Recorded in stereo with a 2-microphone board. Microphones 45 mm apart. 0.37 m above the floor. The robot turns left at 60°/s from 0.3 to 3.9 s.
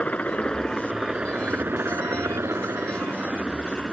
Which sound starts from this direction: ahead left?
A helicopter, at 0.0 s.